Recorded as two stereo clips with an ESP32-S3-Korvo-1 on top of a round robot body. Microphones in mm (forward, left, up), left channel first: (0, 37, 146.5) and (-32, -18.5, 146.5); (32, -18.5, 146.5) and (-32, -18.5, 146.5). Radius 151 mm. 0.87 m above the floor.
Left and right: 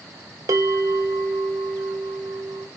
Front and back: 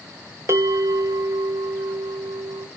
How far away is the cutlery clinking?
I don't hear cutlery clinking.